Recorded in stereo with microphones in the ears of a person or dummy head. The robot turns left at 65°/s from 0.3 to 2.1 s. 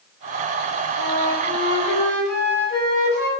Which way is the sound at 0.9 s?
175° right.